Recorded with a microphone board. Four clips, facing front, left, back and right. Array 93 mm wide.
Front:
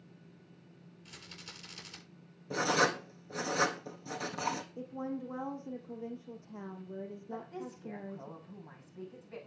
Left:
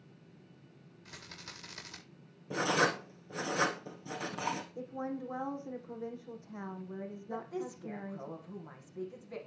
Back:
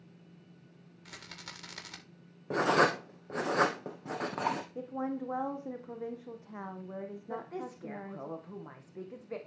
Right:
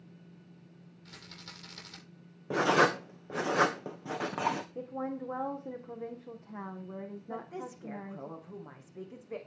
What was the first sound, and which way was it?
A rattle, 170° left.